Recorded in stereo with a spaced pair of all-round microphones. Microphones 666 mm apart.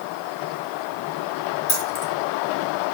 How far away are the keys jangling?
About 1.8 m.